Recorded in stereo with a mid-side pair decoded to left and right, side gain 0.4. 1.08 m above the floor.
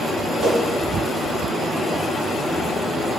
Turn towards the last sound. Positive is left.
turn(degrees=-70)